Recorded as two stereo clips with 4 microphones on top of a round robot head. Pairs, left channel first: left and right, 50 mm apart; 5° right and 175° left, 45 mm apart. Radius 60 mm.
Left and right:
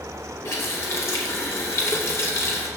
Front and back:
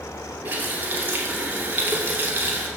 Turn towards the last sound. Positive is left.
turn(degrees=125)